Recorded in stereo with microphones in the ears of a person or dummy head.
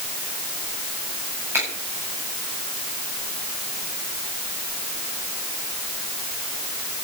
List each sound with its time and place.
1.5 s a finger snap: 15° right (ahead or behind), 8.5 m